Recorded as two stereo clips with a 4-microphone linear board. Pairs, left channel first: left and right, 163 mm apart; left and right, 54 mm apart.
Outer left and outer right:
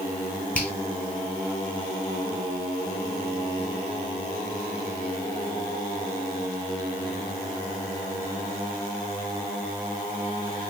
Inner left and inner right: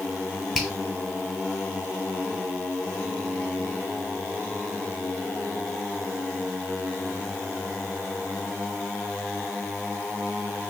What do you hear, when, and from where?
0.6 s a finger snap: 10° right (ahead or behind), 1.6 m